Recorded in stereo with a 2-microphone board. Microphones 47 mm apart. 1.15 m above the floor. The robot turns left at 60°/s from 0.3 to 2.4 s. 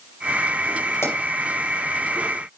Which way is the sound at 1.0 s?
75° left (ahead or behind).